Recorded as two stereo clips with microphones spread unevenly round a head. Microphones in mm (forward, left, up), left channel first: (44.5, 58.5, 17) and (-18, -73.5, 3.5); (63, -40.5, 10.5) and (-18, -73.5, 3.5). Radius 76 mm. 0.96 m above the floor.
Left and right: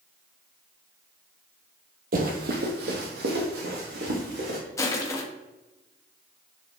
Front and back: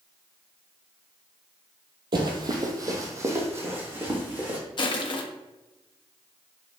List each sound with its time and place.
2.1 s running footsteps: 140° right, 1.5 m; by 4.6 s 90° right, 3.5 m
4.8 s crushing: 5° right, 1.3 m